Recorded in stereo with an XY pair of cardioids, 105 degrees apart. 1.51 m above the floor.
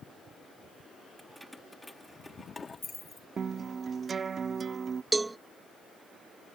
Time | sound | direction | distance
1.2 | keys jangling | 10° right | ?
3.4 | a guitar | 40° right | ?
5.1 | a cowbell | 20° right | ?